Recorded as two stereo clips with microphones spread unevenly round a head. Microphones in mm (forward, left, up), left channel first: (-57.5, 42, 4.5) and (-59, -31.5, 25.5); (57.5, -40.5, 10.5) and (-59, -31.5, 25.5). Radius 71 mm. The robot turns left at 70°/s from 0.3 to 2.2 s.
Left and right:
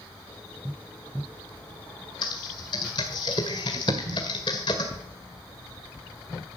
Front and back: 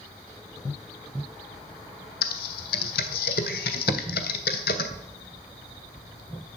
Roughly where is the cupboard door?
Behind right.